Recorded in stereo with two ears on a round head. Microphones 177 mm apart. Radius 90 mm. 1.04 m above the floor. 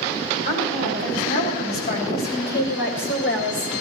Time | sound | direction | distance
0.5 | a woman speaking | 50° left (ahead or behind) | 5.5 m